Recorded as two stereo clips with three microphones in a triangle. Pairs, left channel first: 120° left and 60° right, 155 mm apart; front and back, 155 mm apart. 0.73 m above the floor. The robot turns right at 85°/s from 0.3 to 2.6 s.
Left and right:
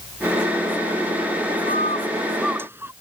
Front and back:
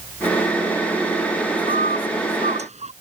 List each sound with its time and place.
1.7 s a bird: 145° left; by 2.9 s 135° right